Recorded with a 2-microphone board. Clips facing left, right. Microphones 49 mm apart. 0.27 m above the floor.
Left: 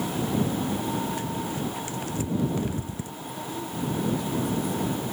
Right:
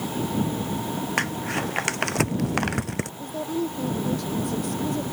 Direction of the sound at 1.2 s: 80° right.